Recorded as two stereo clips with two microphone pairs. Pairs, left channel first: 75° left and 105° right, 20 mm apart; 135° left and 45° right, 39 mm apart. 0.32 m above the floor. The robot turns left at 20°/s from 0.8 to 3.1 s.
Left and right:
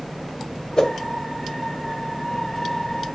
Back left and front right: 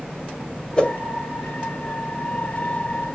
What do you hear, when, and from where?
0.8 s a whoosh: 85° left, 1.4 m